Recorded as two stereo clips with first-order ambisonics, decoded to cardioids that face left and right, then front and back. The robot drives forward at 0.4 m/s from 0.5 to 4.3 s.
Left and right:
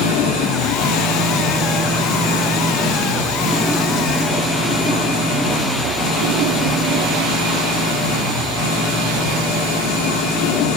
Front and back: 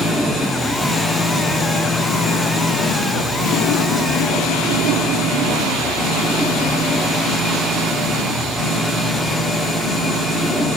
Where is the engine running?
80° left, 5.5 m; by 10.8 s 95° left, 5.5 m.